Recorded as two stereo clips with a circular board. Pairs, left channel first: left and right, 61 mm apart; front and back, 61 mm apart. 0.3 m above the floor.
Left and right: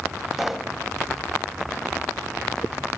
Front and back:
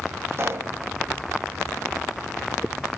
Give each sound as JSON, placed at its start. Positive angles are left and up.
{"t": 0.3, "sound": "a pop", "azimuth_deg": -175, "distance_m": 1.4}